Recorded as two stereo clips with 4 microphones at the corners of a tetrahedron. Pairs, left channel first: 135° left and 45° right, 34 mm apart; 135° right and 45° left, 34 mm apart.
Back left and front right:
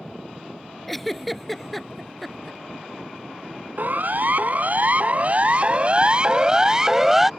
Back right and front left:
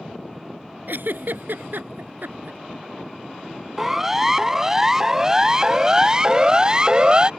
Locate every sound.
0.9 s a giggle: 50° left
3.8 s a siren: 30° right; by 7.3 s 30° left